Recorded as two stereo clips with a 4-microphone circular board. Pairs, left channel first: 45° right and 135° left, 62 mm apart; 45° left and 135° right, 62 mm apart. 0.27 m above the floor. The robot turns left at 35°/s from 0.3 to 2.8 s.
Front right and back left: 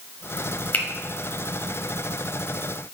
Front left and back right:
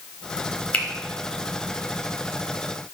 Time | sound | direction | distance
0.7 | a finger snap | 10° right | 0.8 m